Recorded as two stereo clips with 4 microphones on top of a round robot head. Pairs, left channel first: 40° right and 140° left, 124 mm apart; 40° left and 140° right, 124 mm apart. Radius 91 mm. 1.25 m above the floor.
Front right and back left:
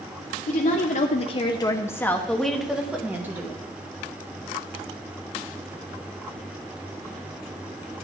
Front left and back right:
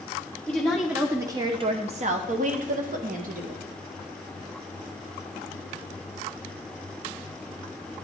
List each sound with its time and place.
0.5 s a woman speaking: 40° right, 1.2 m; by 3.6 s 145° right, 2 m